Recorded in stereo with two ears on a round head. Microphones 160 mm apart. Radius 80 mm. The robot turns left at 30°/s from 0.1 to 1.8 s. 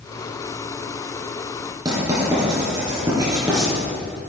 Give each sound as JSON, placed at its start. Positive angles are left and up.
{"t": 1.9, "sound": "writing", "side_deg": -20, "distance_m": 3.5}